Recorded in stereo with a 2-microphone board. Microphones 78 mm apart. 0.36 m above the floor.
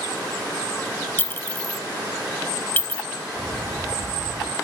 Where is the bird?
80° right.